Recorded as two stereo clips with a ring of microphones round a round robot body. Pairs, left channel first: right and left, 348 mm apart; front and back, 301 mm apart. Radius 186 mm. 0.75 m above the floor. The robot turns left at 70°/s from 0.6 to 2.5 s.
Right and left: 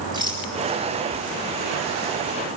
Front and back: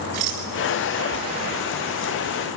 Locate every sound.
0.1 s a rattle: 170° left, 8 m